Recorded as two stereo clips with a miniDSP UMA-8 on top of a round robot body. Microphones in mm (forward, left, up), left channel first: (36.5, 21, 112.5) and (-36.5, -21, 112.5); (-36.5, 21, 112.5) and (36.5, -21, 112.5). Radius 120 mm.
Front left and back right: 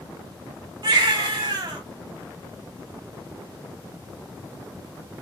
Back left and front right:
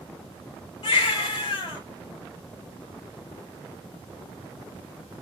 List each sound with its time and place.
0.8 s a baby crying: 170° left, 0.8 m